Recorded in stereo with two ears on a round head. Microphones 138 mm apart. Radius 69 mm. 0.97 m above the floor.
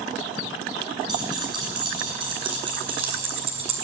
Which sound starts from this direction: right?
Keys jangling, at 1.1 s.